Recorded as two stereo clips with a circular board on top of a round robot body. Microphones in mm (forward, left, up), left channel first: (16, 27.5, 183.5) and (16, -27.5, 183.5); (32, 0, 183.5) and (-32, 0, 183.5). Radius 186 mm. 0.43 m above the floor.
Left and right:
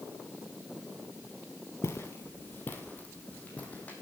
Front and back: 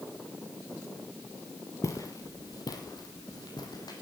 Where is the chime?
No chime in this recording.